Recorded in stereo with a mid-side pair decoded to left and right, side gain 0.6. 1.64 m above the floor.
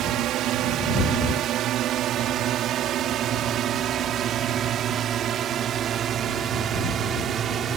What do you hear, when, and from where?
0.0 s a drone: 65° right; by 7.8 s 45° right